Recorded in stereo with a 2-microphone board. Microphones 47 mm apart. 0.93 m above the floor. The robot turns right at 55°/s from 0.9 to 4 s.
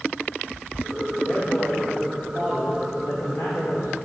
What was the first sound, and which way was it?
A man speaking, 50° right.